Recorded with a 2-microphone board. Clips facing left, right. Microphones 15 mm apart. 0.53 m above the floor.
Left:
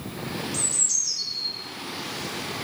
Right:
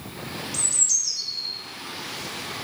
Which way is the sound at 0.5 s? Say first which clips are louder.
Right 3 dB; 10° right (ahead or behind).